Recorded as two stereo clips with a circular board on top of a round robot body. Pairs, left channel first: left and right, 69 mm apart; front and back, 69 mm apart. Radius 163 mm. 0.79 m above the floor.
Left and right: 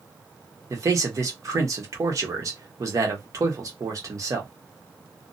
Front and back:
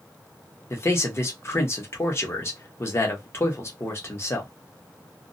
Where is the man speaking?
50° right, 1.1 m.